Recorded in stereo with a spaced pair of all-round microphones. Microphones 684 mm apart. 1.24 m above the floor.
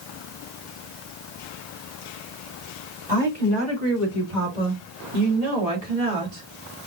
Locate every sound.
3.1 s a woman speaking: 85° right, 3 m; by 6.4 s 50° right (ahead or behind), 2.5 m